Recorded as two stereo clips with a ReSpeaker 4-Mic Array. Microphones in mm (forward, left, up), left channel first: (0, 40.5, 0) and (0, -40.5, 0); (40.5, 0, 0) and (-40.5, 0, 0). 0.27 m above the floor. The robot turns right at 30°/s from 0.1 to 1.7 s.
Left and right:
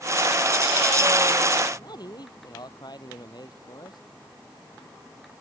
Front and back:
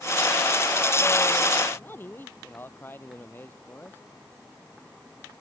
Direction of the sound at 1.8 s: 60° left.